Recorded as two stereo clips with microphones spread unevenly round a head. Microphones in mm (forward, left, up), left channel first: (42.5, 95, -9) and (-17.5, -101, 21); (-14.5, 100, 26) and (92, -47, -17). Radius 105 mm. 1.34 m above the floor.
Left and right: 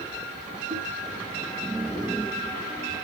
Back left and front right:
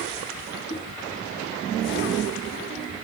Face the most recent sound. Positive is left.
turn(degrees=-175)